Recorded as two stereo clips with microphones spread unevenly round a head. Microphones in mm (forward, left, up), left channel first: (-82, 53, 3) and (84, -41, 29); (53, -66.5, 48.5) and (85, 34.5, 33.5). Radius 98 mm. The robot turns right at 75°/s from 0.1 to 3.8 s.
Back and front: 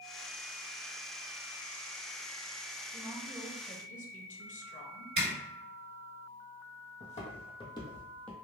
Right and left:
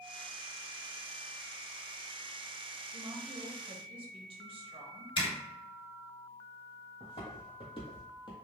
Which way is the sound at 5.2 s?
80° right.